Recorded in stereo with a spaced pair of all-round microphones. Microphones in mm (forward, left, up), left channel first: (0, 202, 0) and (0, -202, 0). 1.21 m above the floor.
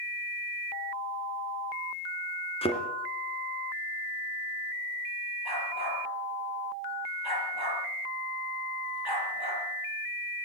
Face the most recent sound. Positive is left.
turn(degrees=-70)  # may be behind; listen again after turning